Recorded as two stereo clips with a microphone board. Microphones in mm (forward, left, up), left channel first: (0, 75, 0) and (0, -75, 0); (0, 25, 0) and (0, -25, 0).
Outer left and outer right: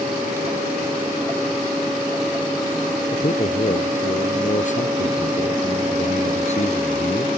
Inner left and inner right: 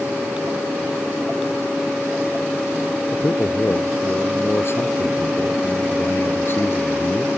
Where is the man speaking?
55° left (ahead or behind); by 7.3 s 45° left (ahead or behind).